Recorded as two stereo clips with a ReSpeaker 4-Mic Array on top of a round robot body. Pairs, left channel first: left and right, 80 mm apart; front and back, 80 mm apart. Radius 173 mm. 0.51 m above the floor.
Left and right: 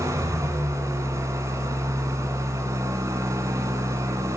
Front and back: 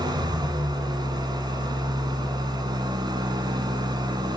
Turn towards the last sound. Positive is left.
turn(degrees=-145)